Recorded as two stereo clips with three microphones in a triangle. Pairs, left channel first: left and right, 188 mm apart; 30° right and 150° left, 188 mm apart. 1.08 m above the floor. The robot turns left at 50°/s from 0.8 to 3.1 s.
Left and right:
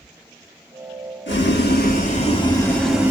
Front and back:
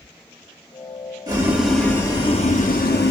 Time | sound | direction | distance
1.3 | boiling | 85° left | 1.0 m